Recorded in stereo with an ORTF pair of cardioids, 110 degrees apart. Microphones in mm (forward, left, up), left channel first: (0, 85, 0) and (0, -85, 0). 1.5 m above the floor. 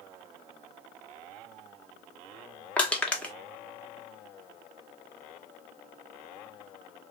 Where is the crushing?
5° left, 0.7 m.